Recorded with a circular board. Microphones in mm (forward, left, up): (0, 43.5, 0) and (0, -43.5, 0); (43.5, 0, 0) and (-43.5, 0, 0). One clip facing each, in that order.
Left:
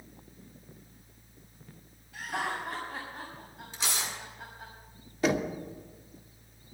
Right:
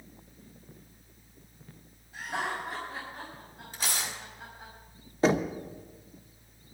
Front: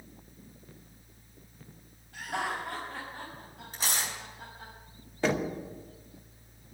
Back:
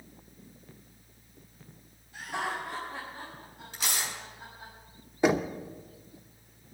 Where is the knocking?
115° right, 0.8 m.